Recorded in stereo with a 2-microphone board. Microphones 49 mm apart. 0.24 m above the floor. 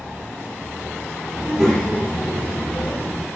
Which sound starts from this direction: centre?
A child speaking, at 1.4 s.